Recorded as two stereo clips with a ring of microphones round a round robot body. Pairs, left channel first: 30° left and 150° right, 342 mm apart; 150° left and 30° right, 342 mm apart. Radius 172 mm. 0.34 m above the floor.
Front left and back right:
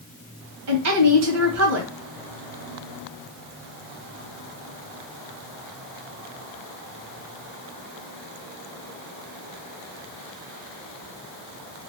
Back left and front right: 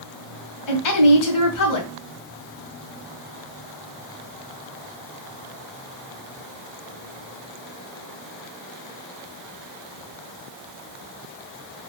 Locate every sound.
0.7 s a woman speaking: 170° left, 2 m